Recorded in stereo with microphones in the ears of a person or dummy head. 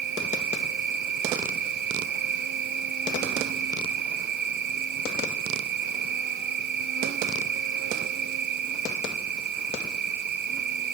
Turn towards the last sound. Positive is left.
turn(degrees=-60)  # may be behind; listen again after turning